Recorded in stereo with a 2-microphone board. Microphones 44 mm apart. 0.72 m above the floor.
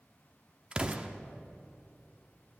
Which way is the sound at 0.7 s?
25° right (ahead or behind).